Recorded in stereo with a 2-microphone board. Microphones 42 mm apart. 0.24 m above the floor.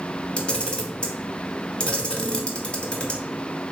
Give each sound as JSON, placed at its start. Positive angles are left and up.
{"t": 0.4, "sound": "a camera shutter", "side_deg": 25, "distance_m": 0.6}